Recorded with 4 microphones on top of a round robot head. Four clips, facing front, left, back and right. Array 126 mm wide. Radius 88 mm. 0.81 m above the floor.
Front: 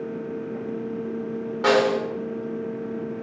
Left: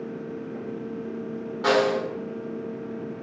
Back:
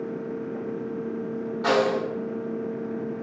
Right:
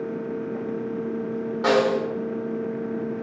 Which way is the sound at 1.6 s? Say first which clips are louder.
Right 1 dB, front 3 dB; 15° right.